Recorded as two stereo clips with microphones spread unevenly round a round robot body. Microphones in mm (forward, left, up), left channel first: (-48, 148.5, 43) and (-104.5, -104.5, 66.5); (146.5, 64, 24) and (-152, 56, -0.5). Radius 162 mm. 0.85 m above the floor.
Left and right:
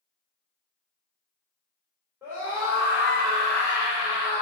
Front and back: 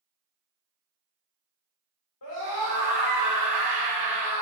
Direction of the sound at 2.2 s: 20° right.